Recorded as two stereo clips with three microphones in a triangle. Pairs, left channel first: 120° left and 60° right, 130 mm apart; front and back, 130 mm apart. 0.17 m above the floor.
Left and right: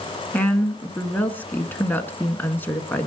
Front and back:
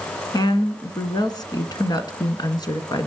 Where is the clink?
No clink in this recording.